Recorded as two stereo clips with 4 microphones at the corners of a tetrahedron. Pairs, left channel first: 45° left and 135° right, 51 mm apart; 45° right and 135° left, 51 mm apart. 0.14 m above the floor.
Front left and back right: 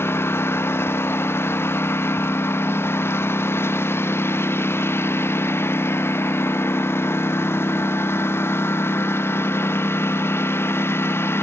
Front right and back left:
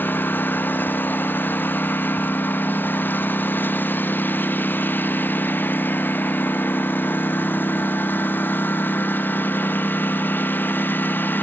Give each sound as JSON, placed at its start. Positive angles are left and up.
{"t": 0.0, "sound": "a lawn mower", "azimuth_deg": 5}